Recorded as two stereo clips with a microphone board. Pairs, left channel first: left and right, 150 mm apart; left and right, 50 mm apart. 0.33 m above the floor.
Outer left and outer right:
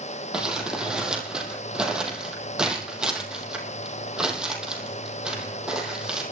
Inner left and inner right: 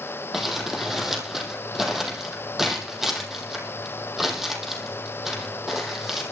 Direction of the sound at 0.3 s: 5° right (ahead or behind).